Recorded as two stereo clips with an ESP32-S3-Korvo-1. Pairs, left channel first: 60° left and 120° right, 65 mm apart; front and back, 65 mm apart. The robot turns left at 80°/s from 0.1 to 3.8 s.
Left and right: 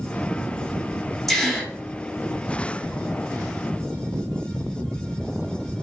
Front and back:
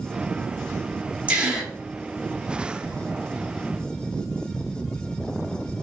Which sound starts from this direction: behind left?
A gasp, at 1.3 s.